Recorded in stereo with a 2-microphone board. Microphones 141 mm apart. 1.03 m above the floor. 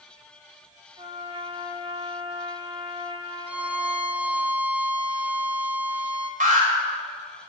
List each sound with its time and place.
1.0 s a trumpet: 40° right (ahead or behind), 1.1 m
3.5 s a violin: 10° right (ahead or behind), 0.9 m
6.4 s an alarm: 75° right (ahead or behind), 3 m